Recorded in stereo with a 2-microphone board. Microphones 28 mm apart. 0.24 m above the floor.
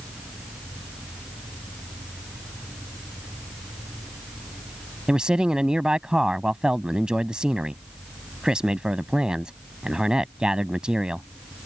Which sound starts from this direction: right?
A man speaking, at 5.1 s.